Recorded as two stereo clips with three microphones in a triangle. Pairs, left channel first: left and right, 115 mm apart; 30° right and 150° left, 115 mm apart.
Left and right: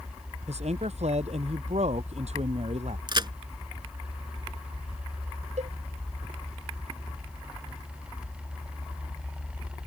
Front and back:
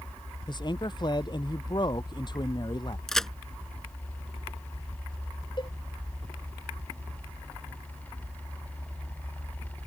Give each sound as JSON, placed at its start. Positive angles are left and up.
{"t": 0.5, "sound": "a man speaking", "azimuth_deg": -80}
{"t": 3.1, "sound": "a crack", "azimuth_deg": -115}
{"t": 5.6, "sound": "a cowbell", "azimuth_deg": -80}